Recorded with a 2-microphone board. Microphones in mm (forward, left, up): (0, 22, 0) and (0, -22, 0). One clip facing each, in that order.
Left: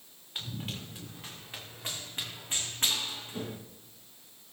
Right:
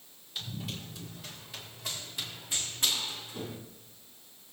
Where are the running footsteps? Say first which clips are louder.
Left 1 dB; 45° left (ahead or behind), 7 m; by 3.6 s 40° left (ahead or behind), 4.5 m.